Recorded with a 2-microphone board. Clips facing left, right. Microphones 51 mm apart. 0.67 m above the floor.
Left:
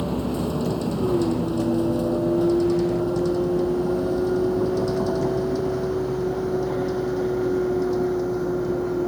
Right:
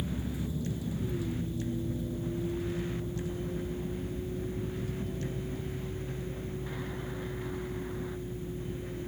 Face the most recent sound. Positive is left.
turn(degrees=85)